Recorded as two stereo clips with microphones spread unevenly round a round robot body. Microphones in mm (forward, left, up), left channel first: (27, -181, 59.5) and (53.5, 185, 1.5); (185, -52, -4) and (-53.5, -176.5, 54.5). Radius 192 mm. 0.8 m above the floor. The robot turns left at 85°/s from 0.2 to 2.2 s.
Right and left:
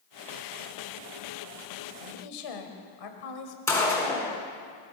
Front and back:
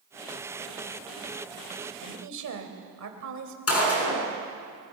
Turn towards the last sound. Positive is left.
turn(degrees=-10)